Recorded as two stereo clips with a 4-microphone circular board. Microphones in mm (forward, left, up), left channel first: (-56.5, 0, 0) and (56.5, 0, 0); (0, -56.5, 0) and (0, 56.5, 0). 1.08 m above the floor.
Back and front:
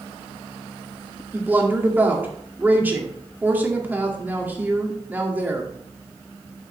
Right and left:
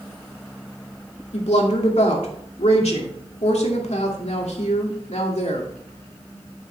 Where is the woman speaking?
75° right, 2 m.